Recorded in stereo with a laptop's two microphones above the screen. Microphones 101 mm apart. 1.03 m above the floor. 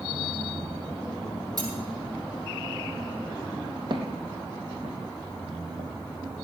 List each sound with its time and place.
1.6 s cutlery clinking: 40° right (ahead or behind), 8 m
3.9 s footsteps: 50° right (ahead or behind), 3 m